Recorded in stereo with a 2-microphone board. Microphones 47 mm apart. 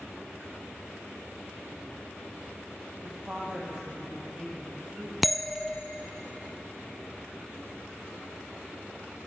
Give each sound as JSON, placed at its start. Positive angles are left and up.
{"t": 3.0, "sound": "a woman speaking", "side_deg": -25, "distance_m": 4.0}
{"t": 5.2, "sound": "a bell", "side_deg": 0, "distance_m": 1.0}